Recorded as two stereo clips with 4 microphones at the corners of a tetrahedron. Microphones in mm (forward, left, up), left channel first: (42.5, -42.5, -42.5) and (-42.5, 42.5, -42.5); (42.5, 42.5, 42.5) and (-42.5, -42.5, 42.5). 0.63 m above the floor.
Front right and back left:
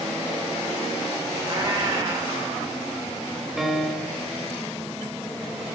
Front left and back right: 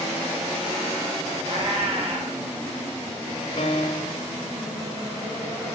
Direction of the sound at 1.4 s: 170° right.